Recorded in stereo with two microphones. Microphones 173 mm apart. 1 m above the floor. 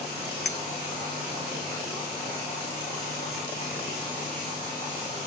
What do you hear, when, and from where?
0.5 s a clink: 75° left (ahead or behind), 0.6 m